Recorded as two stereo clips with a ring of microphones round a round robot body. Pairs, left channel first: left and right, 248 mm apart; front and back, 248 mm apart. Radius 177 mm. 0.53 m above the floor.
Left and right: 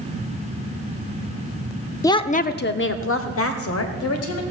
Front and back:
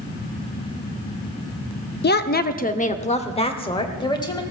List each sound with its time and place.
2.0 s a woman speaking: 15° left, 0.7 m; by 4.4 s 75° left, 2.5 m